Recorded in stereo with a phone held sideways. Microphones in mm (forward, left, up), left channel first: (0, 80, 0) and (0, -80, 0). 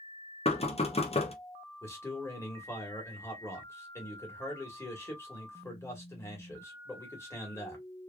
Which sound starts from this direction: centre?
A man speaking, at 1.8 s.